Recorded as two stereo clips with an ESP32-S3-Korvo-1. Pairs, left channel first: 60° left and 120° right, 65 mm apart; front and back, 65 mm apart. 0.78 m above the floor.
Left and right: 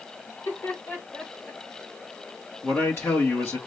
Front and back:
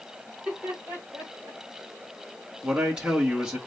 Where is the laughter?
105° left, 2.5 m; by 1.6 s 140° left, 3 m.